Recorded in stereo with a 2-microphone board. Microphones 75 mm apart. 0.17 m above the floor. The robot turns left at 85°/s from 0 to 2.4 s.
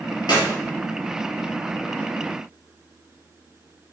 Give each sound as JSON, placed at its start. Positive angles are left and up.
{"t": 0.3, "sound": "a clap", "side_deg": 65, "distance_m": 3.5}